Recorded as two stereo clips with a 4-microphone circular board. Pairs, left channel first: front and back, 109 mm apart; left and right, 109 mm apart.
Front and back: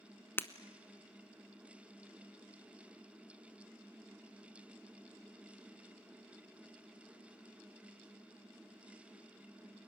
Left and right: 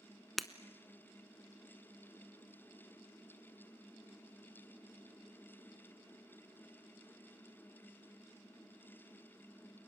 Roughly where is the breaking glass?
Ahead.